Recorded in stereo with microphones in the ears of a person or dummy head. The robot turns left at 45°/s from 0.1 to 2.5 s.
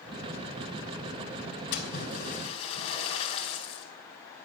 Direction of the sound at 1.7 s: 75° left.